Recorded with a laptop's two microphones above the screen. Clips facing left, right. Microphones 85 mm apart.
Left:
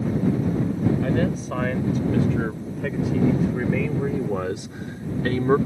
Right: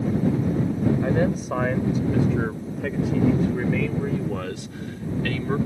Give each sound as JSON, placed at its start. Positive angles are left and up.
{"t": 1.0, "sound": "a man speaking", "side_deg": -15}